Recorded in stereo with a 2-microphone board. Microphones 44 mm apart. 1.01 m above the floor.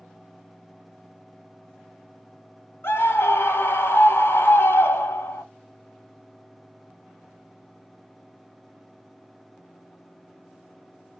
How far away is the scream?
About 1.0 m.